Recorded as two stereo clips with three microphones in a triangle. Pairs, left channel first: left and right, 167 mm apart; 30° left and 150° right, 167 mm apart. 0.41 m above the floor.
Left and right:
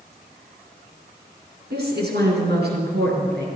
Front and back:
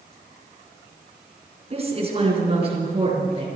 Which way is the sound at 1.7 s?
100° right.